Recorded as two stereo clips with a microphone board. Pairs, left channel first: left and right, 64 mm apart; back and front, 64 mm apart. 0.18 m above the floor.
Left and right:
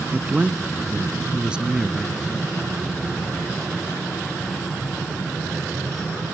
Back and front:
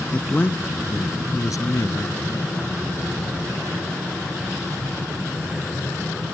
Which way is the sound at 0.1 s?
125° right.